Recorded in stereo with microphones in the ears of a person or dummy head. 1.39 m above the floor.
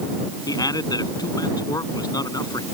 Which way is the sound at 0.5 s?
15° left (ahead or behind).